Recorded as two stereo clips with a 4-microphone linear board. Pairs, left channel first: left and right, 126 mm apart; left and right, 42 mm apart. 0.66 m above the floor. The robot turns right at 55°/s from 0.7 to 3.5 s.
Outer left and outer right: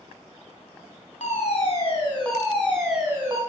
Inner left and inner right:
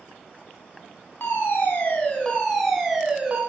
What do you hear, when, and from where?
1.2 s a fire alarm: 90° left, 4.5 m; by 3.4 s 150° right, 4.5 m